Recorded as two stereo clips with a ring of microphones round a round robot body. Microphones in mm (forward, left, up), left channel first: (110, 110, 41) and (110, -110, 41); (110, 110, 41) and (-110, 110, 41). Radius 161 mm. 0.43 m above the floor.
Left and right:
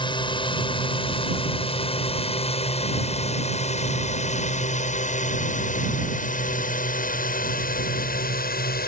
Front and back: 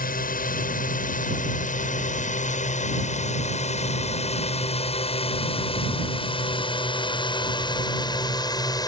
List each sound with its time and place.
0.0 s a drone: 30° left; by 8.9 s 65° left